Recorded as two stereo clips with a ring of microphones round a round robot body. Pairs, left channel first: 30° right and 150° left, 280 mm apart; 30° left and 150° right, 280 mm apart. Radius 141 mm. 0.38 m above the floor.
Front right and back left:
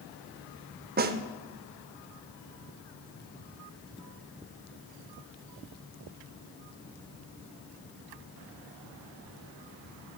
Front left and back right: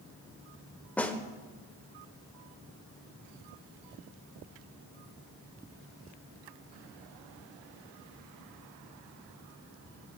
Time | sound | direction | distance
1.0 | a snare drum | 110° left | 0.5 m